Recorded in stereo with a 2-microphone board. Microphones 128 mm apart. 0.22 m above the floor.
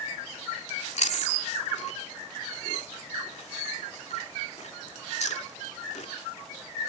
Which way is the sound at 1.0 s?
65° left (ahead or behind).